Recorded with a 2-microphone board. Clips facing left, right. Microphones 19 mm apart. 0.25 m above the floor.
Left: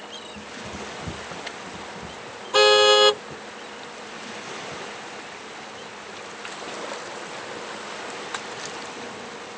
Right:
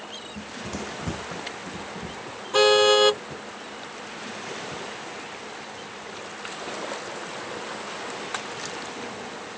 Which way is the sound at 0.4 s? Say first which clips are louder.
Right 3 dB; 60° right (ahead or behind).